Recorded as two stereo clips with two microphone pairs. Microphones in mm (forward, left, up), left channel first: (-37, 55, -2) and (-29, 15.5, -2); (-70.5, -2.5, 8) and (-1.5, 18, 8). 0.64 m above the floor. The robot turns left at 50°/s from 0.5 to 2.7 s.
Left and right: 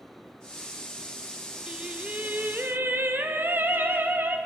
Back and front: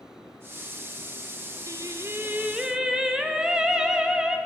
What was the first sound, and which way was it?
Singing, 10° right.